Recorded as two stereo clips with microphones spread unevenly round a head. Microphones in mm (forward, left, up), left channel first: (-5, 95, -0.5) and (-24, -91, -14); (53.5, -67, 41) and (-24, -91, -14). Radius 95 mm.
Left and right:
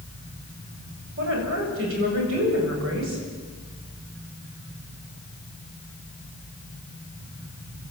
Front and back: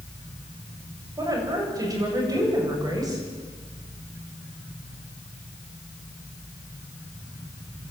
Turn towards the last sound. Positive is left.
turn(degrees=-115)